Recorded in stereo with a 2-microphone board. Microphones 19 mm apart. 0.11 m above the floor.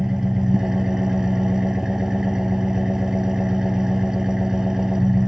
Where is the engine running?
35° right (ahead or behind), 0.9 m.